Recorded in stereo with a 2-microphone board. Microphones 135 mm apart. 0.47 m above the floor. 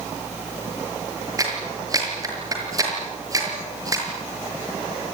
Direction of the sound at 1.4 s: 30° right (ahead or behind).